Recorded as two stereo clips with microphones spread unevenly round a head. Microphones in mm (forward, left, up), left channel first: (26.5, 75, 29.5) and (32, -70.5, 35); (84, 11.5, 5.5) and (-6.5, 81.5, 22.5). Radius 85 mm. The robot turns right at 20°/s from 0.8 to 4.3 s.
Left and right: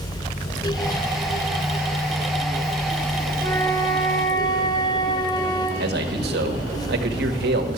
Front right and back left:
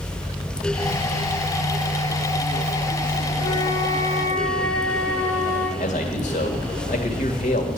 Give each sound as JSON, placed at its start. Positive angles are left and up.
{"t": 3.4, "sound": "a flute", "azimuth_deg": 15, "distance_m": 3.0}
{"t": 5.8, "sound": "a man speaking", "azimuth_deg": -80, "distance_m": 1.8}